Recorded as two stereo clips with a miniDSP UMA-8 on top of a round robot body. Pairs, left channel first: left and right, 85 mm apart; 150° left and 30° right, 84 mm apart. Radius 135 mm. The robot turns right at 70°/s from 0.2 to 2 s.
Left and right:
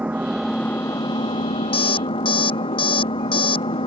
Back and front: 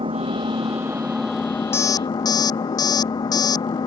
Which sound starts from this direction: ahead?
An engine running, at 0.0 s.